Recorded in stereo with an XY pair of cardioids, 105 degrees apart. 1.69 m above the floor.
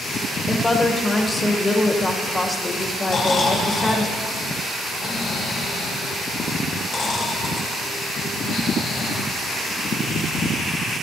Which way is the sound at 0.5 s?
20° left.